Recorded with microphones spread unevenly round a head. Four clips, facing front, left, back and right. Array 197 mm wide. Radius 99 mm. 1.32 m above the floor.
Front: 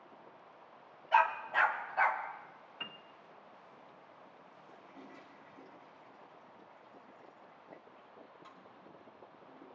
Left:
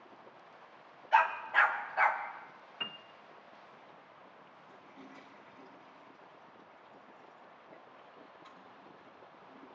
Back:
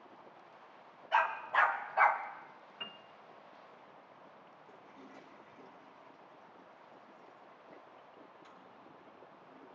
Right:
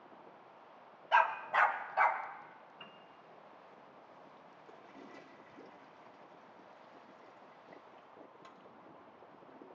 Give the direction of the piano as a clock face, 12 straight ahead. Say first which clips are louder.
Left 11 dB, front 1 dB; 9 o'clock.